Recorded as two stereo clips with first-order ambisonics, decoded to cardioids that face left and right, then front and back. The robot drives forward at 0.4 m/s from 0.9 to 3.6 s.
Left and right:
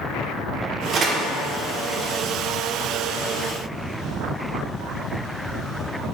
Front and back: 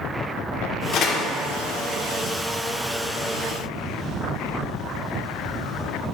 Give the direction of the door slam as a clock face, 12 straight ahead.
1 o'clock.